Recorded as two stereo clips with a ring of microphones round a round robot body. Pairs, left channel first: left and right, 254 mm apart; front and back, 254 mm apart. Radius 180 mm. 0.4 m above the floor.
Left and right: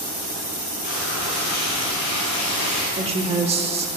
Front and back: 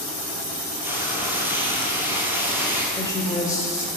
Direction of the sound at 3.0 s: 60° right.